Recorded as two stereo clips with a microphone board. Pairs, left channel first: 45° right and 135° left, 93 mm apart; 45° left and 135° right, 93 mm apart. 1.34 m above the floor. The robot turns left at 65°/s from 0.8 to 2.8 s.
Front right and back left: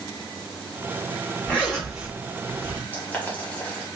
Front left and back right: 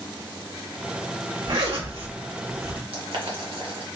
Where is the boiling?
115° right, 1.1 m.